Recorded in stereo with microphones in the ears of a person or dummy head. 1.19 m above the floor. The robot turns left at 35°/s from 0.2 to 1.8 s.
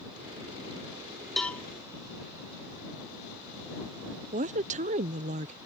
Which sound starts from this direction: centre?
A cowbell, at 1.4 s.